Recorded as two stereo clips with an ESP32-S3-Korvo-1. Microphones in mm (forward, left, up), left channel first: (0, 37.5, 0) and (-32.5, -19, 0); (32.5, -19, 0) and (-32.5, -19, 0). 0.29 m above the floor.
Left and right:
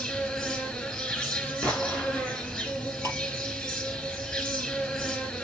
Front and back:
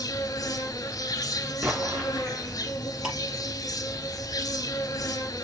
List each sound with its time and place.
0.0 s an insect: 15° right, 1.8 m
1.6 s an explosion: 120° left, 3 m
3.0 s ticking: 105° left, 5 m